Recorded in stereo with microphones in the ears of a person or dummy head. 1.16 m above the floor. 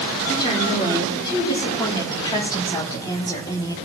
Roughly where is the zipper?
I don't hear a zipper.